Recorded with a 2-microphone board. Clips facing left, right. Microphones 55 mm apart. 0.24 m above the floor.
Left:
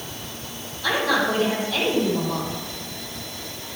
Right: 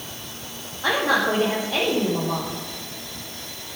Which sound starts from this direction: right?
A woman speaking, at 0.8 s.